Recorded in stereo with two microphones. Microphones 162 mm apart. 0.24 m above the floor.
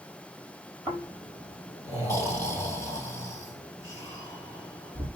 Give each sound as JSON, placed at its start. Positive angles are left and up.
{"t": 0.9, "sound": "snoring", "side_deg": -20, "distance_m": 5.0}